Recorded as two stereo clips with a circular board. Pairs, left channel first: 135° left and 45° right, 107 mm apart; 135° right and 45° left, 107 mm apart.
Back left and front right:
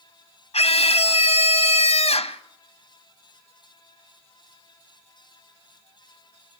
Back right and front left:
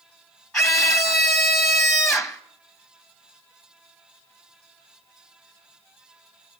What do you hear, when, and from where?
0.5 s a scream: 135° left, 1.1 m